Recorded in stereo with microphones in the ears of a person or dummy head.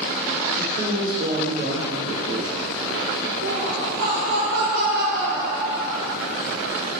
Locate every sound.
0.6 s a woman speaking: 50° right (ahead or behind), 2 m
3.4 s laughter: 55° right (ahead or behind), 1.7 m